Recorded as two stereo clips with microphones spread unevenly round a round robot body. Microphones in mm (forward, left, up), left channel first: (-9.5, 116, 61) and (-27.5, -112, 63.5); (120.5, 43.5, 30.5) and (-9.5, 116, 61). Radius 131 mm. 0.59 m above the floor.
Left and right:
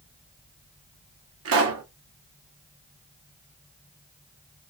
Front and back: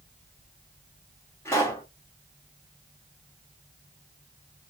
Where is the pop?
100° right, 1.1 m.